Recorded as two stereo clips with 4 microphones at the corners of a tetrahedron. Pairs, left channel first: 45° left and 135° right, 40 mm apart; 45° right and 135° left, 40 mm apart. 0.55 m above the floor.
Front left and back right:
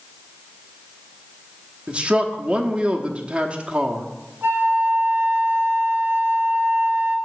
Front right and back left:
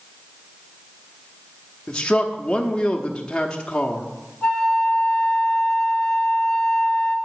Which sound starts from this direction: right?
A man speaking, at 1.9 s.